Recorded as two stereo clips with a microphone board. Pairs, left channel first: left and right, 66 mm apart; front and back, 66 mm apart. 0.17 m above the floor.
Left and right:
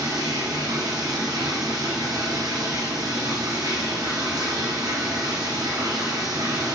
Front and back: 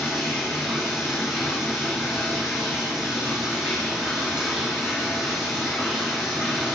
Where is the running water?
100° right, 2.5 m.